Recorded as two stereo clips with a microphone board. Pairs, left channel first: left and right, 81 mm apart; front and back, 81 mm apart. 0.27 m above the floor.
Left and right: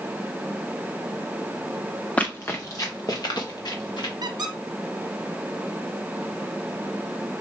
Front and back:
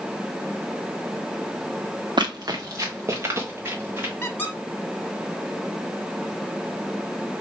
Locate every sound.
2.2 s running footsteps: 160° left, 0.7 m; by 4.1 s 115° left, 2 m
4.2 s a squeak: 65° right, 1.1 m